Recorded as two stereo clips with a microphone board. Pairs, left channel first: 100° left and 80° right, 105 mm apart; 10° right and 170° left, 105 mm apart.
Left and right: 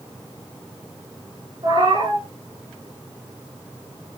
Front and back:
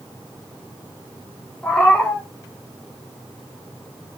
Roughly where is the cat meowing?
Right.